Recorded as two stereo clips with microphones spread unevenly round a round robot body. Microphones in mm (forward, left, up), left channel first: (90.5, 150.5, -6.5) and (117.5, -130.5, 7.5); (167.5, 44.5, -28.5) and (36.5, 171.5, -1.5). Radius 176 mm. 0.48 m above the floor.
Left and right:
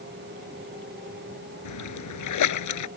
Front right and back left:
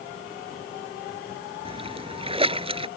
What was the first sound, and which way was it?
A splash, 75° left.